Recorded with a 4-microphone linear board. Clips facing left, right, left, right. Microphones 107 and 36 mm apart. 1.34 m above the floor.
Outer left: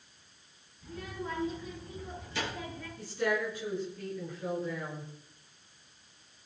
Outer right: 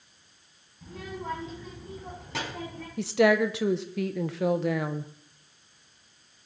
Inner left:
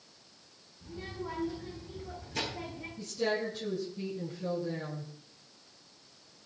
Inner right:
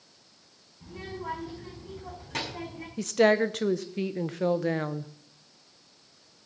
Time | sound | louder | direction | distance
0.8 | a child speaking | outer right 3 dB, inner right 3 dB | 85° right | 6 m
3.0 | a woman speaking | outer right 10 dB, inner right 10 dB | 70° right (ahead or behind) | 0.9 m